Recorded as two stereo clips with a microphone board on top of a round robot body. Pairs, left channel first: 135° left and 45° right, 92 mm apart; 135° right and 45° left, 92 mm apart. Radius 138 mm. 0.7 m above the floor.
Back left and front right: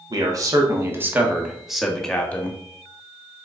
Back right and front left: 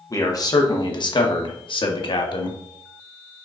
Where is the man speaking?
85° right, 2 m; by 2.6 s 155° right, 2.0 m.